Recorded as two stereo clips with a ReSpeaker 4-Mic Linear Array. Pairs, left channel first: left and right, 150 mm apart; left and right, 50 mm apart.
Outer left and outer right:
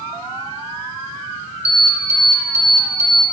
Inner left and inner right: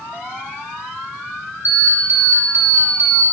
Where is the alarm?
40° right (ahead or behind), 3.5 m.